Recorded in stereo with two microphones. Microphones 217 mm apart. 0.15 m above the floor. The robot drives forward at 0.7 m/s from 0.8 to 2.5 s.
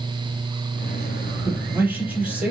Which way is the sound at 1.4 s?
10° right (ahead or behind).